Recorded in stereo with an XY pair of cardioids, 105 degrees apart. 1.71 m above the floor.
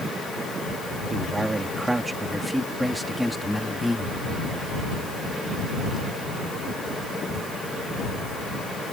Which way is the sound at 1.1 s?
25° right.